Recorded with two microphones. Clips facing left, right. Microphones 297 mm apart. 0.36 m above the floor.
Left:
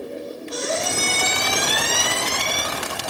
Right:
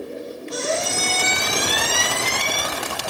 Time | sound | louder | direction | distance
0.5 | a squeak | right 1 dB | 30° right (ahead or behind) | 1.5 m